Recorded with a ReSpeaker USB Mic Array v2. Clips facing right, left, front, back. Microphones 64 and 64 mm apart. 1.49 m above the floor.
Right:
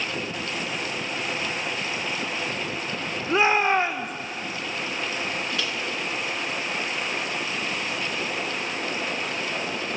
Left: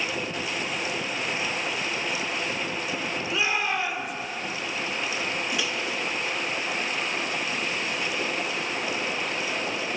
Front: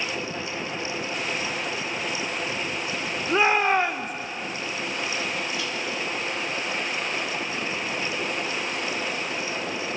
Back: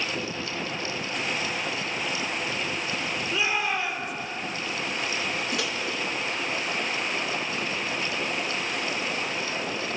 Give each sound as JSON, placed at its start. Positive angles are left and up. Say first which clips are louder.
{"t": 3.3, "sound": "a shout", "louder": "right 8 dB, front 8 dB", "azimuth_deg": -40, "distance_m": 1.6}
{"t": 5.5, "sound": "a microwave", "louder": "even, back 1 dB", "azimuth_deg": 165, "distance_m": 1.8}